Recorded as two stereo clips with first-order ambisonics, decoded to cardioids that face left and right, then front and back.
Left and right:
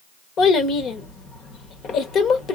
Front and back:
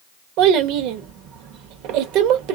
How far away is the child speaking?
About 1.1 m.